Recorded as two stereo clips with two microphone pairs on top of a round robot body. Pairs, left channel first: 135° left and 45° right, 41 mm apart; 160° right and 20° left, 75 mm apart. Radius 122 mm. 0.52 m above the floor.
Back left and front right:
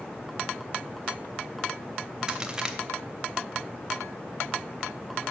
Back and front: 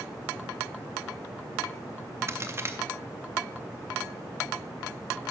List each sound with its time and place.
2.3 s a crack: 10° left, 1.1 m